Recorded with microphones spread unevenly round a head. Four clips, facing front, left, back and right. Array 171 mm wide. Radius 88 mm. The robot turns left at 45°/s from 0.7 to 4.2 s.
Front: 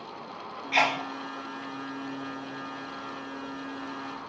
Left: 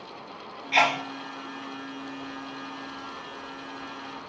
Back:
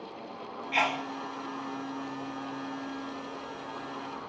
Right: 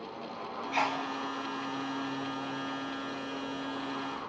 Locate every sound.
0.7 s a sneeze: 55° left, 1.2 m; by 1.0 s 40° left, 1.2 m